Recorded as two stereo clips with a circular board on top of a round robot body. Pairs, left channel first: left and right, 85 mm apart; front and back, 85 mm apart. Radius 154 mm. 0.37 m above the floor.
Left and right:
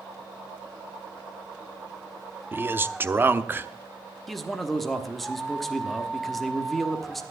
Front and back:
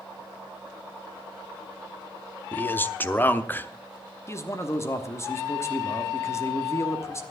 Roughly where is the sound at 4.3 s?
Ahead.